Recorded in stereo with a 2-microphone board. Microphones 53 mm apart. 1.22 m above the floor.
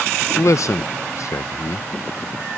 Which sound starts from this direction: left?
A man speaking, at 0.4 s.